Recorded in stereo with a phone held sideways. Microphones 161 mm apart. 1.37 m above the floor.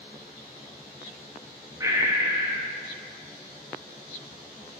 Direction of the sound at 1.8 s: 20° right (ahead or behind).